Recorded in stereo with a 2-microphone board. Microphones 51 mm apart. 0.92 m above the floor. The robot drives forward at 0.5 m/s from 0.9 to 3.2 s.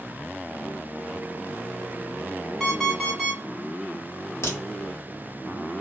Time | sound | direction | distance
2.6 | an alarm clock | centre (ahead or behind) | 1.4 m
4.4 | a crack | 60° left (ahead or behind) | 1.1 m